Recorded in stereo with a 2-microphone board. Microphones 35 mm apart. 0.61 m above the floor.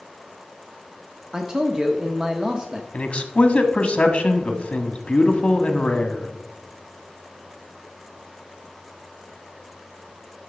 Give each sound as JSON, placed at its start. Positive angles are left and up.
{"t": 1.3, "sound": "a man speaking", "side_deg": -20, "distance_m": 0.9}
{"t": 2.9, "sound": "a man speaking", "side_deg": 40, "distance_m": 1.2}